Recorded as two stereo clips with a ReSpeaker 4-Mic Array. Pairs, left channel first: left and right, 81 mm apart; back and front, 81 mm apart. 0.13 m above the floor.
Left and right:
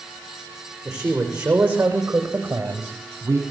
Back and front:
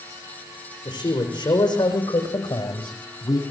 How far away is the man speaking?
About 7.5 m.